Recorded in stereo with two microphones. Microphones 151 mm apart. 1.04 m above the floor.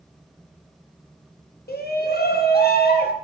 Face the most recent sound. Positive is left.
turn(degrees=75)  # may be behind; listen again after turning